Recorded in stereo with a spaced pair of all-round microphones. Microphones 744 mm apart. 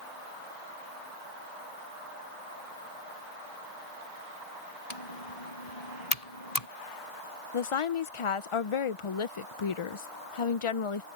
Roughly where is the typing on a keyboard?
Left.